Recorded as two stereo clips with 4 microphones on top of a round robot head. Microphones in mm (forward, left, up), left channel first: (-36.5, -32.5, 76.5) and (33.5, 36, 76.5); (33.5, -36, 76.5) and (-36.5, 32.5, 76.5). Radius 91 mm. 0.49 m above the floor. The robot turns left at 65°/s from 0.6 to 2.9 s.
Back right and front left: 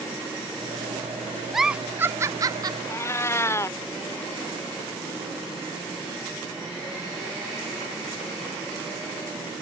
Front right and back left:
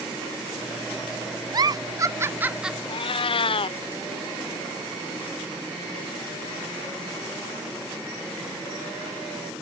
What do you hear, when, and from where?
1.5 s a giggle: 130° left; by 2.8 s 50° left
2.9 s a cat meowing: 70° right; by 3.8 s 75° right